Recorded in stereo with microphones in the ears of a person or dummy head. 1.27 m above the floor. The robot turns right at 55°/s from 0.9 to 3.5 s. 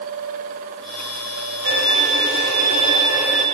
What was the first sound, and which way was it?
A violin, 95° right.